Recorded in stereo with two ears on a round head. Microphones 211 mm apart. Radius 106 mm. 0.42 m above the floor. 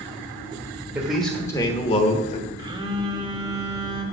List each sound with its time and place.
0.9 s a man speaking: 5° right (ahead or behind), 1.5 m; by 2.5 s 35° left (ahead or behind), 1.8 m
2.6 s a phone buzzing: 20° right (ahead or behind), 1.0 m